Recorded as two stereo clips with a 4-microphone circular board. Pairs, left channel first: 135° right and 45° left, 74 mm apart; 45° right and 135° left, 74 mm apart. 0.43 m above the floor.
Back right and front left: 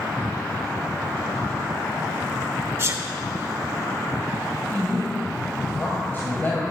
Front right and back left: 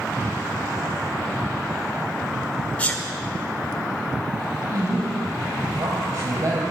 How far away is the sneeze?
About 1.3 m.